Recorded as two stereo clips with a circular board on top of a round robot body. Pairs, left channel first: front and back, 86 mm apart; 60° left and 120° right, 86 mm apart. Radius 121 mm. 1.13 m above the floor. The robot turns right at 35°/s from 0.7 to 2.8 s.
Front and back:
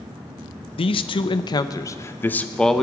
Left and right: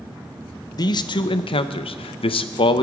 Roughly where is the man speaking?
Ahead.